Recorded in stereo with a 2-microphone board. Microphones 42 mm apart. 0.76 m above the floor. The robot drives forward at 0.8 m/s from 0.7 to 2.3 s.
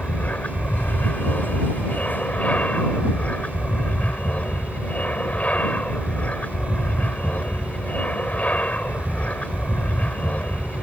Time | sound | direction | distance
0.0 | an aircraft | 35° left (ahead or behind) | ?